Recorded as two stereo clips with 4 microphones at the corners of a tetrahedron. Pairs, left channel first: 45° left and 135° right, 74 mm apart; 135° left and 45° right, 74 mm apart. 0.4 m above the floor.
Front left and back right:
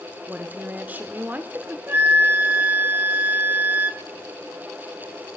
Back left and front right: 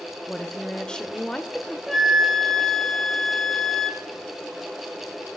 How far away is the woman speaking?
About 0.9 m.